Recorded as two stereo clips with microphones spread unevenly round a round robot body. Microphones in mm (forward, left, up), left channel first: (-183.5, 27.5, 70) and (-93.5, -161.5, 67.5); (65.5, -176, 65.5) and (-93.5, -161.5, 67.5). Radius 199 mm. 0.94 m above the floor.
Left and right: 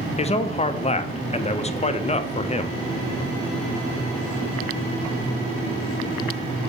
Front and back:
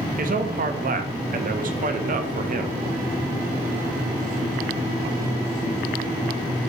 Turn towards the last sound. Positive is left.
turn(degrees=175)